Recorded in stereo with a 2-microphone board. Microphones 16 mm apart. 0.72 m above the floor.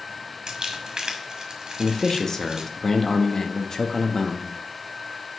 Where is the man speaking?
35° left (ahead or behind), 1.0 m.